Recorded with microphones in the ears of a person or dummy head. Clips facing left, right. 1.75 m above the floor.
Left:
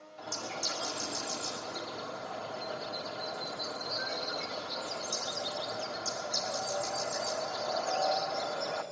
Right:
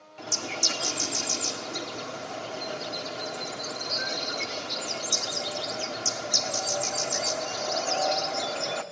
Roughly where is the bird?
Right.